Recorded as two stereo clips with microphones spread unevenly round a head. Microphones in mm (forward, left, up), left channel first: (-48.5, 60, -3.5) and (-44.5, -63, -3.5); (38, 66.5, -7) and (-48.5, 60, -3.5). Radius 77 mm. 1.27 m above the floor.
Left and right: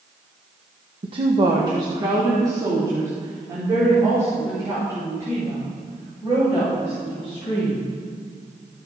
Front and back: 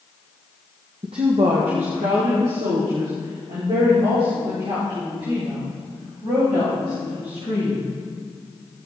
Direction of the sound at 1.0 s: 125° right.